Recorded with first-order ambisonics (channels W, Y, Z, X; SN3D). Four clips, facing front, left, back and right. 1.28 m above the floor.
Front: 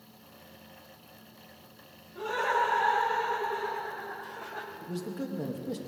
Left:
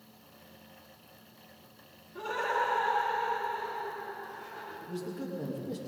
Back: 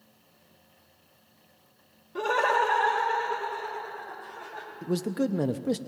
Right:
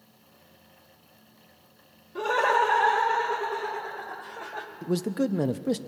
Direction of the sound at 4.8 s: 125° right.